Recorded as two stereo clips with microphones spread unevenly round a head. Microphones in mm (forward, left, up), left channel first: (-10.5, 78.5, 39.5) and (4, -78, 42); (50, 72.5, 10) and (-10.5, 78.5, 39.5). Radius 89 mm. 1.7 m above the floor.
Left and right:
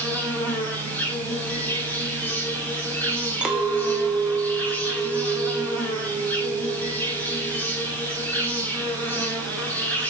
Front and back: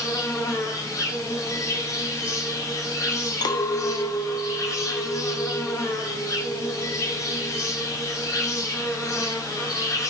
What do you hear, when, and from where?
0.0 s an insect: 15° left, 5 m
3.4 s a clink: 5° right, 1.0 m